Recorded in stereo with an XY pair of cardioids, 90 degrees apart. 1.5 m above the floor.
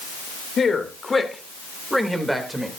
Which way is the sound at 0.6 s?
45° left.